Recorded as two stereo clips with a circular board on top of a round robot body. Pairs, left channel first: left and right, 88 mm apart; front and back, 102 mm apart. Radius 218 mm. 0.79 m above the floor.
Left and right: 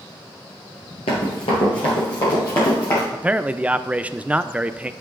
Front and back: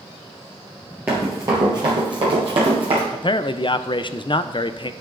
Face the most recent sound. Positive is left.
turn(degrees=-20)